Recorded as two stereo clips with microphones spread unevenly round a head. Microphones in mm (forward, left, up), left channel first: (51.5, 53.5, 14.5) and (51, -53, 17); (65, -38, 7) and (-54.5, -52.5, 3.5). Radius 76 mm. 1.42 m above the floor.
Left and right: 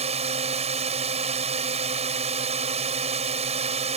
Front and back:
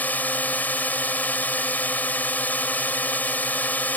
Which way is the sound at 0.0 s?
70° right.